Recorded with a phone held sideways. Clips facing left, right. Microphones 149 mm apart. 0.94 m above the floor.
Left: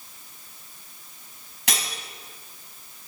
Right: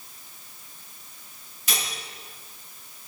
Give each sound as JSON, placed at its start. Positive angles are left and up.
{"t": 1.7, "sound": "cutlery clinking", "side_deg": 90, "distance_m": 5.0}